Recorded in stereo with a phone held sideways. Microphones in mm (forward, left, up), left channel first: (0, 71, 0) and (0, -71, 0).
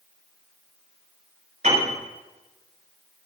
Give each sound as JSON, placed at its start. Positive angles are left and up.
{"t": 1.6, "sound": "a piano", "side_deg": -60, "distance_m": 7.5}